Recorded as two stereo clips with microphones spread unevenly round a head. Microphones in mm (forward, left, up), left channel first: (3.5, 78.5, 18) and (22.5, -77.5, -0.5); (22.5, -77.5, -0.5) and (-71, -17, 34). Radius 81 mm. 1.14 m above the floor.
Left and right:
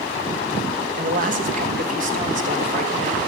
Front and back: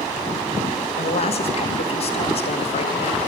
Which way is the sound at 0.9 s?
45° right.